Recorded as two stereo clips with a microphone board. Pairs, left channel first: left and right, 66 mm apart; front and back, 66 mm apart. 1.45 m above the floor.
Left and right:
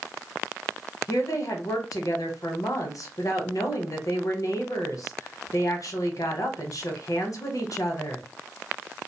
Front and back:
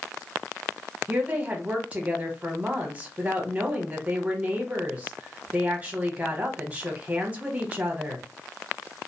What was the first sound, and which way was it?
A woman speaking, 115° left.